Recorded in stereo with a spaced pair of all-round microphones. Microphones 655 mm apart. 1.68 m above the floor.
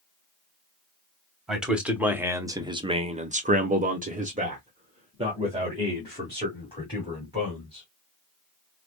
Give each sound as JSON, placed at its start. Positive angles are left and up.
{"t": 1.5, "sound": "a man speaking", "side_deg": 0, "distance_m": 1.2}